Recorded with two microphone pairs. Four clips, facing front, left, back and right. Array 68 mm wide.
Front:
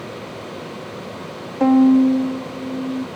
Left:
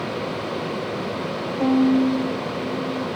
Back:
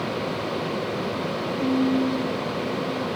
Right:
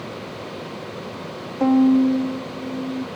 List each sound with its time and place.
1.6 s a violin: 20° right